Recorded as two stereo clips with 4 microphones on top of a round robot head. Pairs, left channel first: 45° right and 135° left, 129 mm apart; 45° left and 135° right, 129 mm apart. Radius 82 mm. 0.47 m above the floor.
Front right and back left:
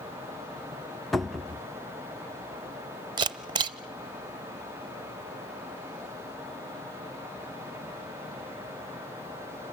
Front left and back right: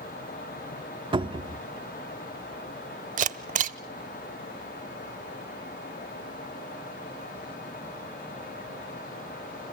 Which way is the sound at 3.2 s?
165° right.